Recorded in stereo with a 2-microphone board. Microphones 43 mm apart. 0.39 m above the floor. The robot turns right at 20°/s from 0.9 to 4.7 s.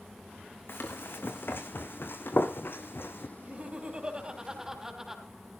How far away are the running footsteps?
About 2.0 m.